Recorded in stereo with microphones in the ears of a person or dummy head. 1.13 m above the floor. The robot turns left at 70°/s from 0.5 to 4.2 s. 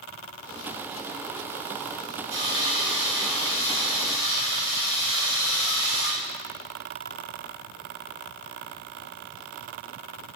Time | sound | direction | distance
2.3 | sawing | 115° right | 1.7 m